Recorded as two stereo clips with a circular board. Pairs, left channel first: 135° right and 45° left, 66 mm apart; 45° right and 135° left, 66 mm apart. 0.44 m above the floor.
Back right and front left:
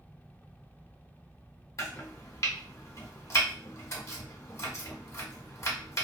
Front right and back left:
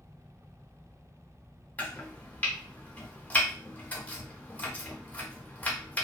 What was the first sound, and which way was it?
Chopping, 105° right.